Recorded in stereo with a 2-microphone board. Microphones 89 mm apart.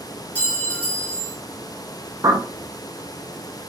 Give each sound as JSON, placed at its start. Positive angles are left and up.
{"t": 0.3, "sound": "a clink", "side_deg": 20, "distance_m": 2.5}
{"t": 2.2, "sound": "a bird", "side_deg": -45, "distance_m": 0.6}